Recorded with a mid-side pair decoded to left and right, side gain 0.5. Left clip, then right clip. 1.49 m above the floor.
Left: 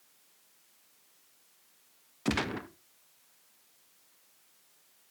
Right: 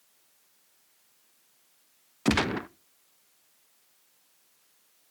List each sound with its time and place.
2.2 s a gunshot: 40° right, 0.6 m